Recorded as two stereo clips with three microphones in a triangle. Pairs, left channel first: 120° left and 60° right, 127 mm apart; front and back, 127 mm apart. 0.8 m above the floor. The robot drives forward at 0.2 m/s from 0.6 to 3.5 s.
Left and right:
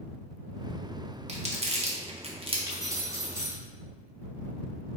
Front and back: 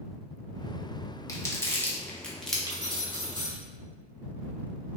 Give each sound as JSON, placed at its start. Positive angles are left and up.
{"t": 1.3, "sound": "crumpling", "azimuth_deg": -60, "distance_m": 0.6}
{"t": 2.7, "sound": "keys jangling", "azimuth_deg": -120, "distance_m": 0.8}